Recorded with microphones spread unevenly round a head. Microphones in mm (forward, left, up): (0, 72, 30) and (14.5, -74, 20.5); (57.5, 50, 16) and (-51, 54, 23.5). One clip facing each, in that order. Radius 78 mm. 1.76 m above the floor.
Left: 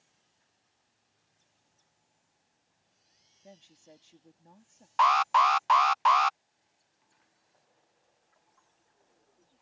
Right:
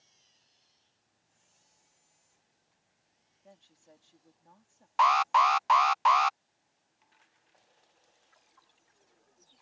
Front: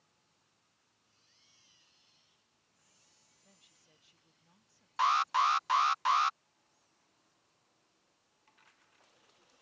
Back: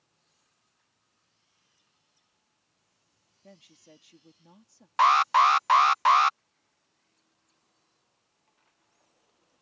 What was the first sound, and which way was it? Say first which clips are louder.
A woman speaking: left 4 dB, back 17 dB; 165° left.